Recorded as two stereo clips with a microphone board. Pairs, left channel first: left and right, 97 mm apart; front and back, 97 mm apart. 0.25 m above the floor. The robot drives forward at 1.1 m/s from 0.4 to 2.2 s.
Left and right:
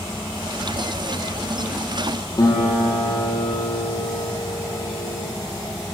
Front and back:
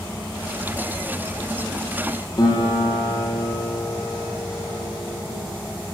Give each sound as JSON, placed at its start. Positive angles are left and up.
{"t": 2.4, "sound": "a guitar", "azimuth_deg": 40, "distance_m": 9.0}